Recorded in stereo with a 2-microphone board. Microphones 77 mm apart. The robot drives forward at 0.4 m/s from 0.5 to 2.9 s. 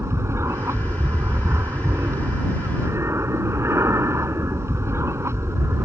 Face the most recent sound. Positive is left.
turn(degrees=-35)  # may be behind; listen again after turning